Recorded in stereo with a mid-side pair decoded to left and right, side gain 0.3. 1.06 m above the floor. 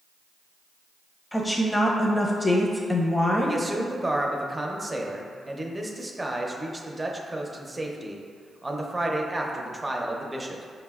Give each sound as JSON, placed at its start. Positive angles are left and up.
{"t": 1.3, "sound": "a woman speaking", "azimuth_deg": 15, "distance_m": 0.7}
{"t": 3.5, "sound": "a man speaking", "azimuth_deg": -25, "distance_m": 0.5}